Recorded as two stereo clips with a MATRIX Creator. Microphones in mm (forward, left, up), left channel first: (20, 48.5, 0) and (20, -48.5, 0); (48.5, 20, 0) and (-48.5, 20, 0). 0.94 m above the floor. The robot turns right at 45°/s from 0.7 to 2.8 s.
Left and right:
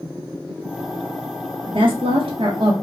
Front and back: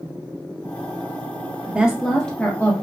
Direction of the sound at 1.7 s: 110° right.